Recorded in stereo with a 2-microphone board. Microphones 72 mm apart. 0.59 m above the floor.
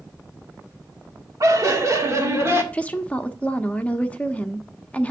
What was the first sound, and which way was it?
Laughter, 50° right (ahead or behind).